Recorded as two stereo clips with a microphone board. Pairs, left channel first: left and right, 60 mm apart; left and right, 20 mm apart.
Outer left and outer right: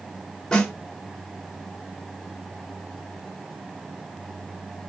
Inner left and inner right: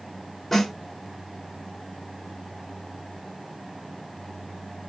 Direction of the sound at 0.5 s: 10° left (ahead or behind).